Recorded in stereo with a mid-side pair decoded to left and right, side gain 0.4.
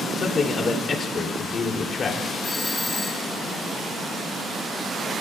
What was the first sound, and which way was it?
A man speaking, 50° left.